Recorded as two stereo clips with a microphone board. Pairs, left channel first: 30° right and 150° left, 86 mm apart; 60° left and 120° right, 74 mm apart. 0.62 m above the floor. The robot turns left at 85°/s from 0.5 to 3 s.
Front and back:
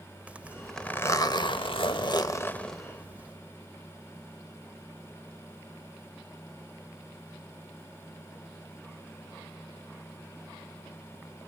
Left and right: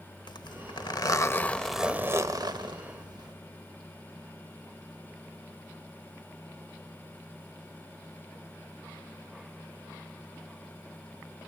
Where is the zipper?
75° left, 0.8 m; by 3.4 s 140° right, 0.8 m.